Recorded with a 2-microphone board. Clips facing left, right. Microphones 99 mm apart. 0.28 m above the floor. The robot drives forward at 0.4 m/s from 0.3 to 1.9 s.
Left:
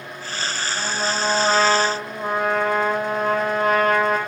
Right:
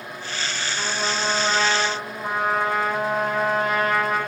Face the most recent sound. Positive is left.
turn(degrees=55)  # may be behind; listen again after turning